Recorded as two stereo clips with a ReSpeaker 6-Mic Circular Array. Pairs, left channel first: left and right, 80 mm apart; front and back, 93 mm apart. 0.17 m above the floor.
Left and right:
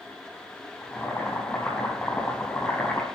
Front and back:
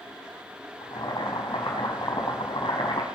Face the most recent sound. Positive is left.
turn(degrees=25)